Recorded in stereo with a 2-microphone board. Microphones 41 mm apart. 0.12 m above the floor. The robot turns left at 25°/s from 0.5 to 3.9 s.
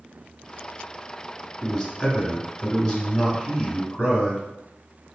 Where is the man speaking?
10° left (ahead or behind), 1.2 m; by 4.4 s 20° left (ahead or behind), 1.2 m.